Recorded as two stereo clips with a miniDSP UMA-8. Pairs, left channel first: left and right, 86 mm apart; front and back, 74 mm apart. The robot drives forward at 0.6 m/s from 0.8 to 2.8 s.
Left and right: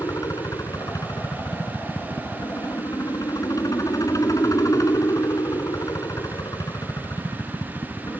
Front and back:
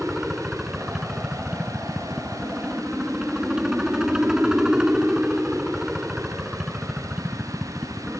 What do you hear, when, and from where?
0.0 s a helicopter: 100° left; by 8.2 s 105° left